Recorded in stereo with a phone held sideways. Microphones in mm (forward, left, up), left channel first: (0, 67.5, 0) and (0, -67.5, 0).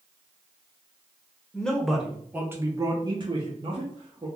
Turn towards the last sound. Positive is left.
turn(degrees=-45)  # may be behind; listen again after turning